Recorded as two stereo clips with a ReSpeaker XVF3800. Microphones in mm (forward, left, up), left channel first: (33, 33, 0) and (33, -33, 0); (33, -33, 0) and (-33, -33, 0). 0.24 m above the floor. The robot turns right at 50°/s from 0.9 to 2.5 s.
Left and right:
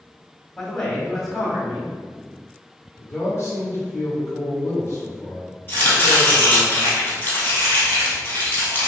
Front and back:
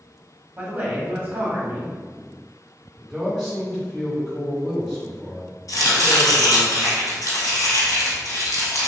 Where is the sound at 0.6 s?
160° left, 1.0 m; by 1.9 s 145° right, 1.0 m.